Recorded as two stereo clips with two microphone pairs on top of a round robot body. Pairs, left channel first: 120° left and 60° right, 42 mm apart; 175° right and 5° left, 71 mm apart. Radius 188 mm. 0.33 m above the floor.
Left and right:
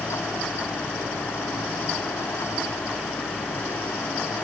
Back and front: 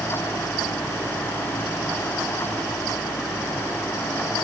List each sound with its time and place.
Only background noise.